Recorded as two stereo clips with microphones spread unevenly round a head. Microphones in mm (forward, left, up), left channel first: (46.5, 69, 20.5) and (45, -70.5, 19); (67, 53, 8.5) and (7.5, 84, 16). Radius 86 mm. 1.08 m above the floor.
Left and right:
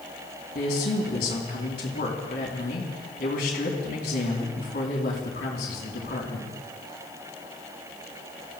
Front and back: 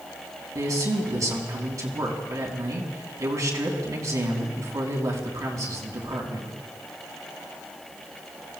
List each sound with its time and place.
0.6 s a man speaking: 120° left, 3 m